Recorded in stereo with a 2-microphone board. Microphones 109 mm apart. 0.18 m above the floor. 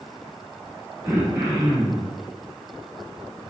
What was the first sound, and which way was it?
Throat clearing, 25° right (ahead or behind).